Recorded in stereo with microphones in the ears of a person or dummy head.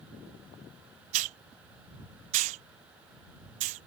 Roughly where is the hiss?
Right.